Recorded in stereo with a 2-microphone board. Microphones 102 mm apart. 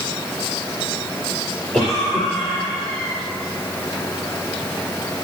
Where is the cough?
15° left (ahead or behind), 3 m.